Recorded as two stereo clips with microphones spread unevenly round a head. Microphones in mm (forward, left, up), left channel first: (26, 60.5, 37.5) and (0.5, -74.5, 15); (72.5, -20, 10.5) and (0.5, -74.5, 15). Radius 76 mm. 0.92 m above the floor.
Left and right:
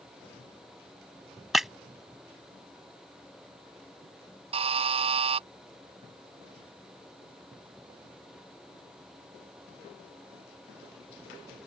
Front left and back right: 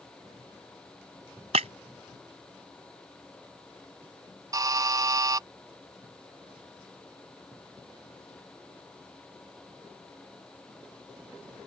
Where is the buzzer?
100° right.